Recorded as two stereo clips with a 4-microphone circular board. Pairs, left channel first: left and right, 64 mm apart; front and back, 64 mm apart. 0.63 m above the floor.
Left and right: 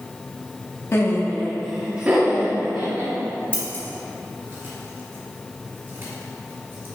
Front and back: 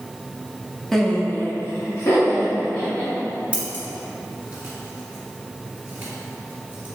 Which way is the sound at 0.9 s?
85° left.